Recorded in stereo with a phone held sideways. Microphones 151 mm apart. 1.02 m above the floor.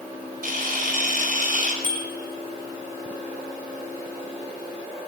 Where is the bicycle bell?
60° right (ahead or behind), 5.5 m.